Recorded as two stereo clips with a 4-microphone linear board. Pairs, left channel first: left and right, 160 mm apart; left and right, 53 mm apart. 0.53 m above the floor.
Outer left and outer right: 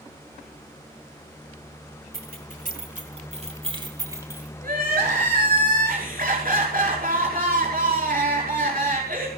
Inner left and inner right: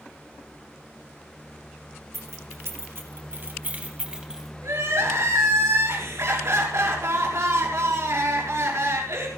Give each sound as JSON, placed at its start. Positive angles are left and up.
{"t": 2.1, "sound": "keys jangling", "side_deg": -70, "distance_m": 3.0}
{"t": 4.6, "sound": "crying", "side_deg": -65, "distance_m": 6.0}